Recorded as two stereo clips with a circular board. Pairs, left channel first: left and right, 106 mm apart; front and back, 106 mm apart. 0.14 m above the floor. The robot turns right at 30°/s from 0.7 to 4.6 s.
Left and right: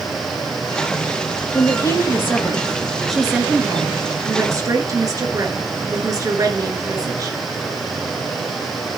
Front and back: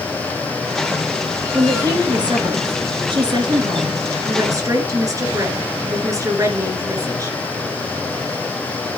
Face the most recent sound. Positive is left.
turn(degrees=-135)